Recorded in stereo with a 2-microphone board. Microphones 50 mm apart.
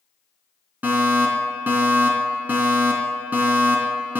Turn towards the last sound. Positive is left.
turn(degrees=-35)  # may be behind; listen again after turning